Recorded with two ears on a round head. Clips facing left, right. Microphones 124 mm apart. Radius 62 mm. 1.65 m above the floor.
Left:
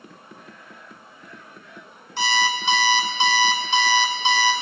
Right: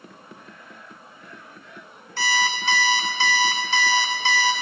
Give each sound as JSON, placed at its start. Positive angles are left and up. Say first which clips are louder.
{"t": 2.2, "sound": "an alarm clock", "louder": "left 2 dB", "side_deg": 20, "distance_m": 1.2}